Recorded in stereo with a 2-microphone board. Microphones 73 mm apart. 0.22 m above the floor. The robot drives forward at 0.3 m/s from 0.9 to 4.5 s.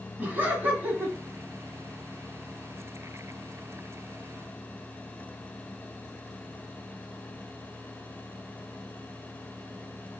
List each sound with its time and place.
0.2 s laughter: 25° right (ahead or behind), 1.5 m